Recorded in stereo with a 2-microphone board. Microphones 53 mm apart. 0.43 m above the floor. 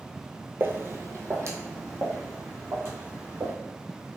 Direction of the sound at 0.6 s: 45° right (ahead or behind).